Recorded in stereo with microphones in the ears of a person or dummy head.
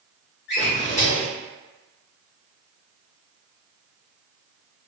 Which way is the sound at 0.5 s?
45° left (ahead or behind).